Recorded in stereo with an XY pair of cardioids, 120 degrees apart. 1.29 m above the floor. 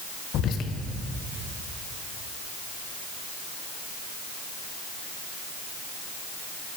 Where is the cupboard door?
No cupboard door in this recording.